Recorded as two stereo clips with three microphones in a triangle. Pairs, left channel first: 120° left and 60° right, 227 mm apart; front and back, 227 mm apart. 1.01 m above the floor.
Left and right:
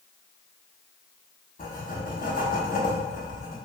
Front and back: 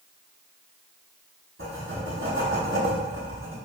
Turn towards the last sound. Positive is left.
turn(degrees=170)